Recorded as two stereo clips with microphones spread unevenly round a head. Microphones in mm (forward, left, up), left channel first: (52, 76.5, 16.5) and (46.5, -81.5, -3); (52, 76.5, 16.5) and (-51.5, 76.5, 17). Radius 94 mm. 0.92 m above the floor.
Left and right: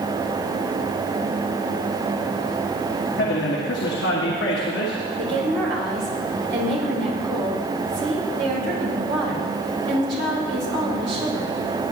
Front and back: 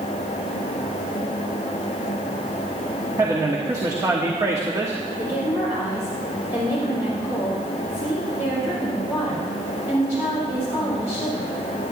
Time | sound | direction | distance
3.2 | a man speaking | 120° left | 1.5 m
5.2 | a woman speaking | 105° right | 3.5 m